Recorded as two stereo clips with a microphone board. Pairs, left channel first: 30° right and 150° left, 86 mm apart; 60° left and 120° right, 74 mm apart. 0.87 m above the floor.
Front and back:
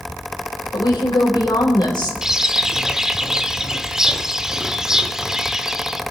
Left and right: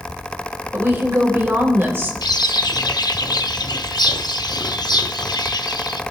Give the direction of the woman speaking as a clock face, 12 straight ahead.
2 o'clock.